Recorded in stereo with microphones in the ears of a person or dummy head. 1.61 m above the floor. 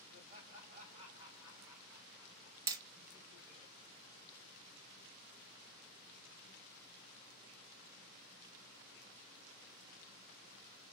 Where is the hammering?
20° right (ahead or behind), 0.7 m.